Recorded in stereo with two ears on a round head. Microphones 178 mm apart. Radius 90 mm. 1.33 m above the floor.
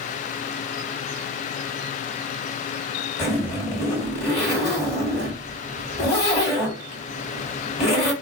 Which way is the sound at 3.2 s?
55° left (ahead or behind).